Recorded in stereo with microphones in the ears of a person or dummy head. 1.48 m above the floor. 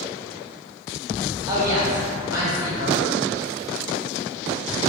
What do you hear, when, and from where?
1.5 s a woman speaking: 15° right (ahead or behind), 0.8 m